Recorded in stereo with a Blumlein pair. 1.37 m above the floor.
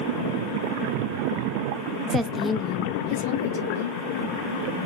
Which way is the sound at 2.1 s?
25° right.